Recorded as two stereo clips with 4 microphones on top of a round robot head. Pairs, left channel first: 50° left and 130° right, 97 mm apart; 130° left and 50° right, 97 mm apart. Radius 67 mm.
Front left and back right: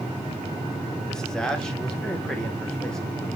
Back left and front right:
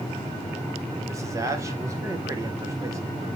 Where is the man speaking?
30° right, 1.2 m.